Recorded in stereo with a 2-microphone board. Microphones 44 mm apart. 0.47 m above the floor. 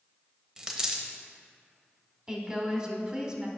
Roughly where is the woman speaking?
Centre.